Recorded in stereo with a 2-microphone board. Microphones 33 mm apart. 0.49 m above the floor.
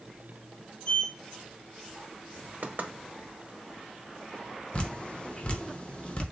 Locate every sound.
0.8 s a sliding door: 35° left (ahead or behind), 3 m
2.6 s knocking: 65° right (ahead or behind), 0.8 m
4.7 s dripping: 40° left (ahead or behind), 0.8 m